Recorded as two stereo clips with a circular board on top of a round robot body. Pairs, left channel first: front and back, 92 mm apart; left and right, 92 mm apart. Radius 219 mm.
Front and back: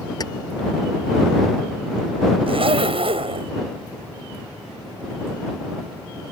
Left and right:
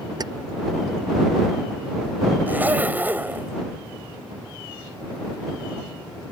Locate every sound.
0.2 s keys jangling: 45° right
2.5 s a zipper: 160° right